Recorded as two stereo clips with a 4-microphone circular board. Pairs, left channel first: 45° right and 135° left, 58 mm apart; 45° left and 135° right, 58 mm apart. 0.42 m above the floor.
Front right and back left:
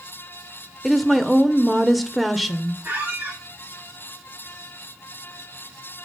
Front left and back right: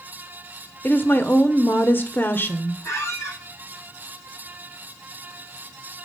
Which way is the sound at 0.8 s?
45° left.